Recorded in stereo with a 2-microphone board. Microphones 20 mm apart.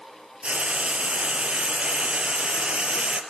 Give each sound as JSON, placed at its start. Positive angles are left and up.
{"t": 0.4, "sound": "frying", "side_deg": -70, "distance_m": 2.5}